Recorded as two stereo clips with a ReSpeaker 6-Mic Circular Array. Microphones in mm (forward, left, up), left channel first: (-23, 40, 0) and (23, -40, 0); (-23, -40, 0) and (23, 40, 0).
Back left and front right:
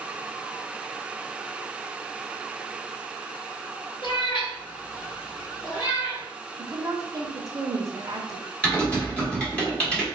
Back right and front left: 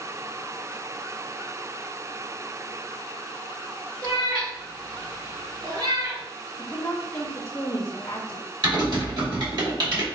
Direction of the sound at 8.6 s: 45° left.